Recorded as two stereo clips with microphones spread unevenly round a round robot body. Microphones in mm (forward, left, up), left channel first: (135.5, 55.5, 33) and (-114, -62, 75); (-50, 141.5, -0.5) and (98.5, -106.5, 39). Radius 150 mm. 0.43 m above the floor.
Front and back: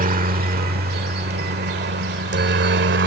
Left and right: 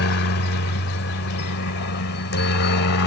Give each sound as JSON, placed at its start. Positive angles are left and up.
{"t": 0.0, "sound": "a helicopter", "azimuth_deg": 150}